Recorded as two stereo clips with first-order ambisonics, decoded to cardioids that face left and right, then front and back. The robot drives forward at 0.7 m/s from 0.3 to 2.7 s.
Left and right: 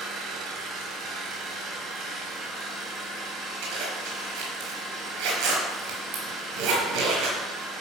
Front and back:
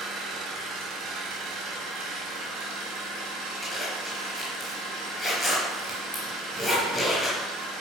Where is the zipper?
80° right, 5 m.